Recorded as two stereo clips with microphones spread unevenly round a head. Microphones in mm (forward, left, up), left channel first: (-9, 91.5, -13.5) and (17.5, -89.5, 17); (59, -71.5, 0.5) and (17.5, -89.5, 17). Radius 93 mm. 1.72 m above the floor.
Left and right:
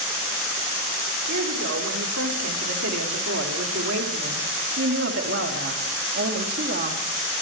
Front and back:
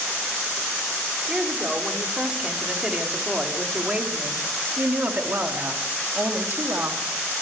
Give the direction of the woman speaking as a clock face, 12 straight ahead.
3 o'clock.